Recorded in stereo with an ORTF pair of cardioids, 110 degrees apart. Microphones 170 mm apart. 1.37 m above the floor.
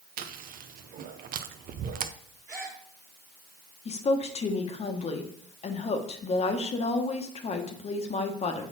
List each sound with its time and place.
0.2 s chewing: 55° right, 0.7 m
2.5 s a gasp: 15° right, 2 m
3.9 s a woman speaking: 40° left, 1.2 m